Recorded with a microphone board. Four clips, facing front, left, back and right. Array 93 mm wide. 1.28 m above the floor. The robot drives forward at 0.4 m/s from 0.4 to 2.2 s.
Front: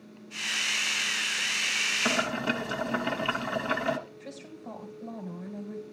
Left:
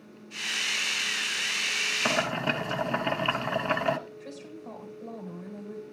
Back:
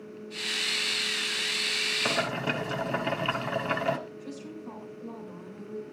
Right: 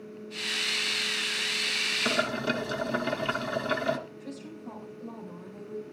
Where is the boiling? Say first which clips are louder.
Left 1 dB, front 1 dB; 95° left, 1.4 m; by 4.0 s 100° left, 1.4 m.